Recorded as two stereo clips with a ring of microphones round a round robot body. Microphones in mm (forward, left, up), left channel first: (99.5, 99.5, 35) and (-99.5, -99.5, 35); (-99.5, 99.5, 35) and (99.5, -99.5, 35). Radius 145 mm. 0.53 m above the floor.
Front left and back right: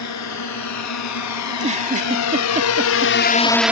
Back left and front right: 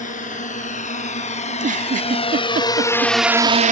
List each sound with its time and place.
0.0 s a drone: 70° left; by 3.7 s 60° right
1.5 s a giggle: 85° right